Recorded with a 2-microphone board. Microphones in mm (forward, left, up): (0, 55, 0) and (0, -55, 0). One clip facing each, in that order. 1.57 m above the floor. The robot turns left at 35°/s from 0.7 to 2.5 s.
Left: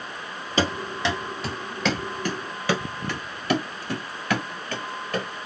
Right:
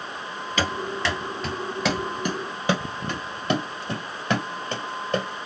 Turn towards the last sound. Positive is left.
turn(degrees=-25)  # may be behind; listen again after turning